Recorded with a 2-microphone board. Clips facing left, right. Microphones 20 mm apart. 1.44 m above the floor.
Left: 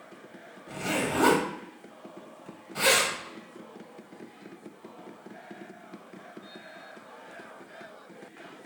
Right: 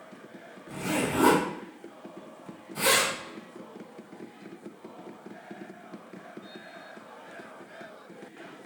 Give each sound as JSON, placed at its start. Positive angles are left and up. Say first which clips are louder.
{"t": 0.7, "sound": "a zipper", "louder": "even", "side_deg": 35, "distance_m": 1.4}